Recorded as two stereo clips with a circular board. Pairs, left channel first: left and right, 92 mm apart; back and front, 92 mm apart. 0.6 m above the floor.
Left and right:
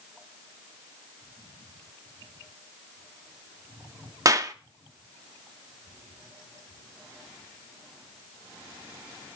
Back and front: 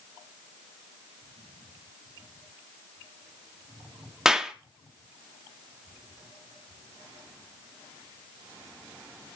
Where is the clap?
80° right, 0.6 m.